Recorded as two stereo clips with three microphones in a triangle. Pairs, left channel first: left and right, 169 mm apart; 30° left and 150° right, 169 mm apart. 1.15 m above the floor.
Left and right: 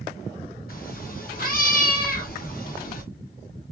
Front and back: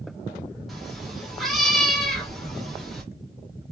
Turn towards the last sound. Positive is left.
turn(degrees=120)